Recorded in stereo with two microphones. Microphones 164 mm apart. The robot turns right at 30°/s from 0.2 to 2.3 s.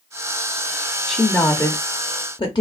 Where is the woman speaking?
5° left, 0.7 m; by 2.6 s 40° left, 0.7 m.